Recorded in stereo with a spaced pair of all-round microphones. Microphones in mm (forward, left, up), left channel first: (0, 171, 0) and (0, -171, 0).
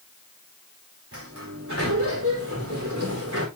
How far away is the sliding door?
About 4.5 m.